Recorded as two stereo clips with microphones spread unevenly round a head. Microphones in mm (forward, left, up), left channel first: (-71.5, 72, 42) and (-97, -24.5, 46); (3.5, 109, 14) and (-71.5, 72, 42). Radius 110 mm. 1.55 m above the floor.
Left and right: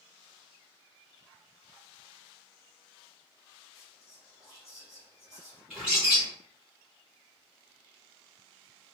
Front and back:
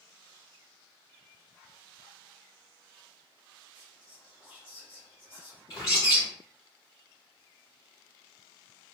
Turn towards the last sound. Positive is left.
turn(degrees=-30)